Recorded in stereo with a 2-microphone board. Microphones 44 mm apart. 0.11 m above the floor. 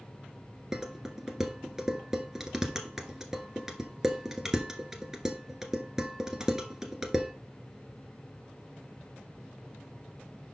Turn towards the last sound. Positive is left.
turn(degrees=-10)  # may be behind; listen again after turning